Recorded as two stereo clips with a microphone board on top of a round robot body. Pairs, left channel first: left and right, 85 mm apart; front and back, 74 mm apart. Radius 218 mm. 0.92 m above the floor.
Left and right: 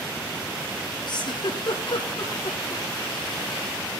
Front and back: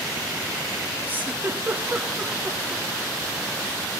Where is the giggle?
115° left, 2.5 m.